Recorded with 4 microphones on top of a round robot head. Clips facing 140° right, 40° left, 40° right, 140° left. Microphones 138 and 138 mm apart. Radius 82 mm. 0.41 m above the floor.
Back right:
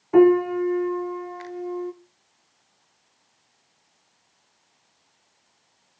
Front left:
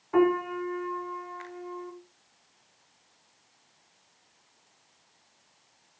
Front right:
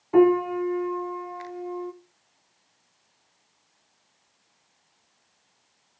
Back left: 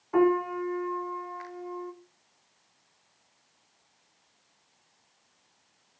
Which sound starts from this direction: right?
A piano, at 0.1 s.